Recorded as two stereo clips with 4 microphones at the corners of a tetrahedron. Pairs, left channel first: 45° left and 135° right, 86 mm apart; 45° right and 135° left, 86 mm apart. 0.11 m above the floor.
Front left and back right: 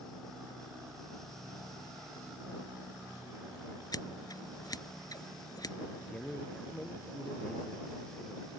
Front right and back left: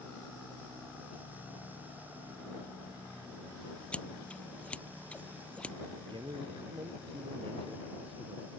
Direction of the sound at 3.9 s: 30° left.